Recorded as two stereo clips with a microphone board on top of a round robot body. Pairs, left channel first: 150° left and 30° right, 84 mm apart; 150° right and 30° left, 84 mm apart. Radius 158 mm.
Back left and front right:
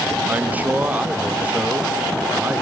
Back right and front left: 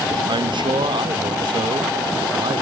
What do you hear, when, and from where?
0.3 s a man speaking: 40° left, 1.2 m